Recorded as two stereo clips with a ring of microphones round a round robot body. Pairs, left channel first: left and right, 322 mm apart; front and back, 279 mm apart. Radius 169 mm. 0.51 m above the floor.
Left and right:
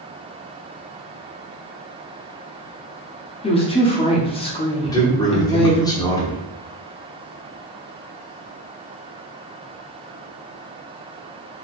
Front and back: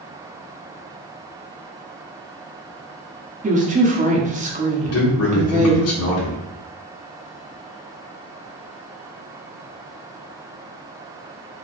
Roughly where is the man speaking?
Ahead.